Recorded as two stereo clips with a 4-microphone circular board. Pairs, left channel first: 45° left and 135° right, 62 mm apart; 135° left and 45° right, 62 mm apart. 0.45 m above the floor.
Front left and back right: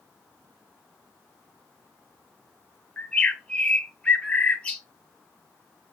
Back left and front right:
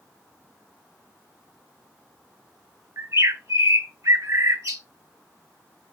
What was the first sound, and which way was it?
A bird, 25° right.